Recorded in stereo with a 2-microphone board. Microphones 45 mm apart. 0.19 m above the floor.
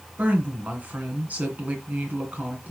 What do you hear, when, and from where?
0.2 s a woman speaking: 35° right (ahead or behind), 2.5 m